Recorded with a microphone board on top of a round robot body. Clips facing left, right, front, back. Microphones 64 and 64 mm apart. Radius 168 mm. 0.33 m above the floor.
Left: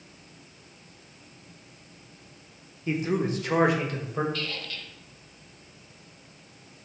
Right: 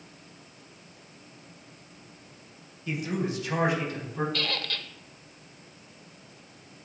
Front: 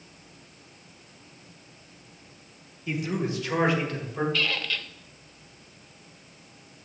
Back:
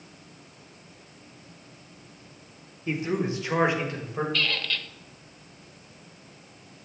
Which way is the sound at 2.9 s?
135° left.